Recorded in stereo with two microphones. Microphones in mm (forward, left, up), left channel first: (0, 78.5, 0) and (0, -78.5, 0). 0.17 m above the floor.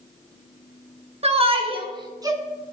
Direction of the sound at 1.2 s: 40° right (ahead or behind).